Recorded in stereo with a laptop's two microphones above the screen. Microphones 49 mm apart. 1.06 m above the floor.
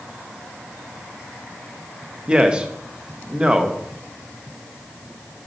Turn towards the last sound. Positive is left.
turn(degrees=-20)  # may be behind; listen again after turning